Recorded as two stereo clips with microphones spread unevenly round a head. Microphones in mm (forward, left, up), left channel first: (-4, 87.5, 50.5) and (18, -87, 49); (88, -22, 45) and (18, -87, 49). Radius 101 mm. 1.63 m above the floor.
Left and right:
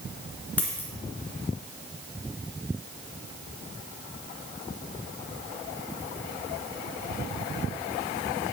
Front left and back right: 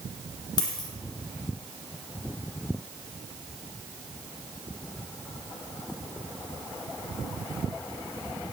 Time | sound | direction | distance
0.6 | a dropped coin | 20° left | 2 m